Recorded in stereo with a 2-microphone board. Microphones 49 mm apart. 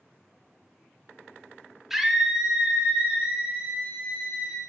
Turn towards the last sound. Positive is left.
turn(degrees=-30)  # may be behind; listen again after turning